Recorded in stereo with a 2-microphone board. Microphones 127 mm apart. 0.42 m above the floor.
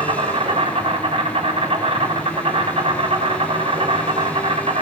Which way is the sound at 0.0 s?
55° right (ahead or behind).